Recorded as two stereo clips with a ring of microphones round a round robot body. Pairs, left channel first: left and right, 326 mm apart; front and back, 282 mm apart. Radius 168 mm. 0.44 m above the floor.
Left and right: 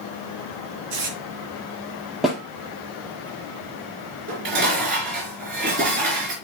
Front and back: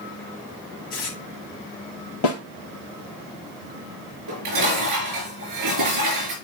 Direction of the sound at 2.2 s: Straight ahead.